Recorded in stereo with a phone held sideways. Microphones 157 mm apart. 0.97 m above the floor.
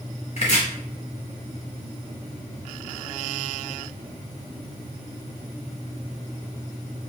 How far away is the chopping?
About 1.3 m.